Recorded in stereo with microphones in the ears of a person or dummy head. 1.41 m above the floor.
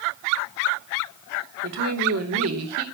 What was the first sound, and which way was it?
A woman speaking, 85° right.